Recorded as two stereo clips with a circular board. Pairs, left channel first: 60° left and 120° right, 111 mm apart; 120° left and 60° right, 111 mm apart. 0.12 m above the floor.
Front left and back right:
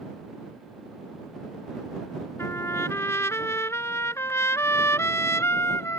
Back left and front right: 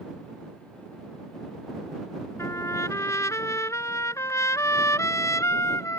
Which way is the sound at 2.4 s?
95° left.